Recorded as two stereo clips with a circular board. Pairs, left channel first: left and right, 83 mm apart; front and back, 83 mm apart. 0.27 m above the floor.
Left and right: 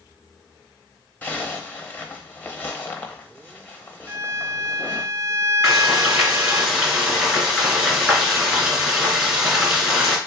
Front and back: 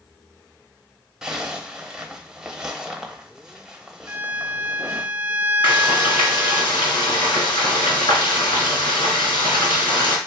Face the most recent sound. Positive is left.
turn(degrees=-10)